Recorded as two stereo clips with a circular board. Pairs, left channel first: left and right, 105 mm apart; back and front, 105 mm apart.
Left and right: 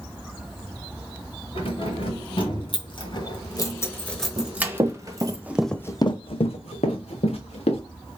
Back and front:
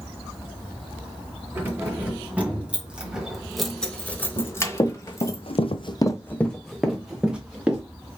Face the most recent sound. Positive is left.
turn(degrees=80)